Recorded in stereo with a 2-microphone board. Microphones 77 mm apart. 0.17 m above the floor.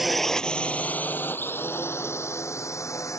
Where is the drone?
5° right (ahead or behind); by 3.2 s 40° left (ahead or behind).